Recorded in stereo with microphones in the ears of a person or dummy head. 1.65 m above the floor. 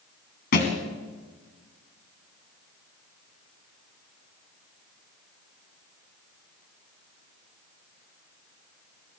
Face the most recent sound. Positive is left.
turn(degrees=45)  # may be behind; listen again after turning